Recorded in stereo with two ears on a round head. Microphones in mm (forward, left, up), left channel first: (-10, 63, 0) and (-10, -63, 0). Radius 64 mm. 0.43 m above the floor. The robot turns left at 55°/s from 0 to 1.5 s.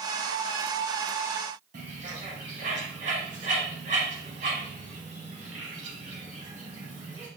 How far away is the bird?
About 3 m.